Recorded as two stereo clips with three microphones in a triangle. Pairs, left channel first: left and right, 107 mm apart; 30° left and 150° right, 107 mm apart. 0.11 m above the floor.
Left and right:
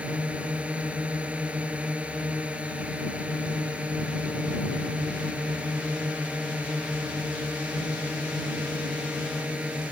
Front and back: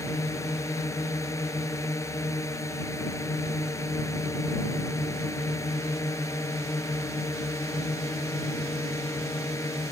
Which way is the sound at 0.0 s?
15° right.